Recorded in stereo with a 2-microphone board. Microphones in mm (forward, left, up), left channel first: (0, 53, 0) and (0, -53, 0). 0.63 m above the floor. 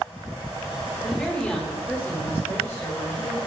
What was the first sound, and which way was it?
A woman speaking, 5° left (ahead or behind).